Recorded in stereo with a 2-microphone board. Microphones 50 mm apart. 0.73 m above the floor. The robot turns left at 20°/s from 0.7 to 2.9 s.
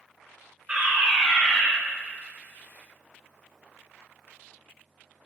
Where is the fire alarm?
20° right (ahead or behind), 2.5 m; by 1.7 s 5° right (ahead or behind), 2.5 m.